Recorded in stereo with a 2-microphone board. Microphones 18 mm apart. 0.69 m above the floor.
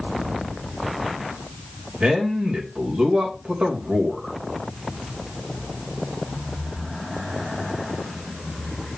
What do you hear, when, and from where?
2.0 s a man speaking: 65° right (ahead or behind), 3.5 m